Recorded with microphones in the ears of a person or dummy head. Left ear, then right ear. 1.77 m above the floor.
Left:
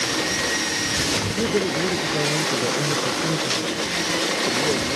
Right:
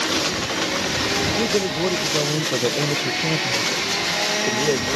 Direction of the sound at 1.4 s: 15° right (ahead or behind).